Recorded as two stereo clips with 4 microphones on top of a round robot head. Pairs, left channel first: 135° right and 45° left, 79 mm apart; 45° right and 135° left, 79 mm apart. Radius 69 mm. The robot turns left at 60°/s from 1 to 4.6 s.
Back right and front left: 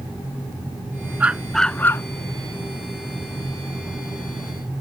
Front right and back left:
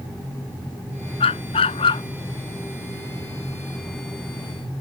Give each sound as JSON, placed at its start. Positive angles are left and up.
{"t": 1.2, "sound": "a dog barking", "azimuth_deg": -30}